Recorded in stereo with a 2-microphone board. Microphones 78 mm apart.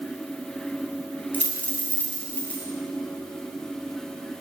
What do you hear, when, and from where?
1.3 s a dropped coin: 20° left (ahead or behind), 1.5 m